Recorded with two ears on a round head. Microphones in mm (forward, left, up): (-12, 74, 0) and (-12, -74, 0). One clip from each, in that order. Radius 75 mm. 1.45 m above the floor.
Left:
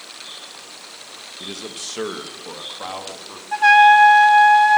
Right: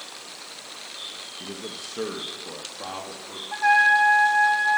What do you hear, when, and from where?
1.4 s a man speaking: 85° left, 1.4 m; by 3.4 s 40° left (ahead or behind), 3 m
3.5 s a trumpet: 75° left (ahead or behind), 1.0 m